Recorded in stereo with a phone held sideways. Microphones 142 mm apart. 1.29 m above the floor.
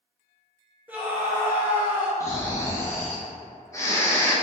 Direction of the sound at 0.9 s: 10° right (ahead or behind).